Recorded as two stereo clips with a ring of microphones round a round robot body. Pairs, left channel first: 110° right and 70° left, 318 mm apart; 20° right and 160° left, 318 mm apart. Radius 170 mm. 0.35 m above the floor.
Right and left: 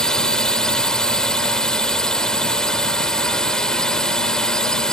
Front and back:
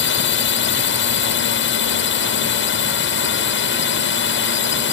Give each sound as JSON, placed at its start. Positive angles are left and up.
{"t": 0.0, "sound": "a drone", "azimuth_deg": -25}